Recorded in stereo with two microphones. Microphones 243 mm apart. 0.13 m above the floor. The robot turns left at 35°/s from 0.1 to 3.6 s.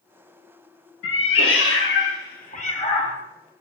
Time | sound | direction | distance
1.0 | a cat meowing | 90° left | 0.5 m